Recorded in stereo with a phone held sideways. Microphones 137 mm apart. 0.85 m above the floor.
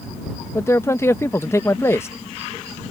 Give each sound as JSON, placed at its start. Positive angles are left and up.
{"t": 0.6, "sound": "a man speaking", "side_deg": 20}